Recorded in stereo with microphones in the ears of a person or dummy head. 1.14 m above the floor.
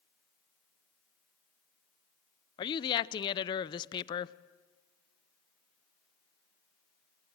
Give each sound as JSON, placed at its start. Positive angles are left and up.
{"t": 2.6, "sound": "a woman speaking", "side_deg": 25, "distance_m": 0.6}